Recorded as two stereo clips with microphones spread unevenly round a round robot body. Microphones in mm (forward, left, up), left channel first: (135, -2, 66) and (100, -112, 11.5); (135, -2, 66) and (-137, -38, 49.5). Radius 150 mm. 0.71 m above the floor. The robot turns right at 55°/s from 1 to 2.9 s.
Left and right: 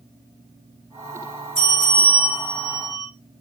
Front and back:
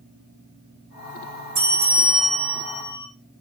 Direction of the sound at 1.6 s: 155° right.